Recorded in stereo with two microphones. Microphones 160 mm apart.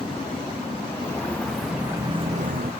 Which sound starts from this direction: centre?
Footsteps, at 0.9 s.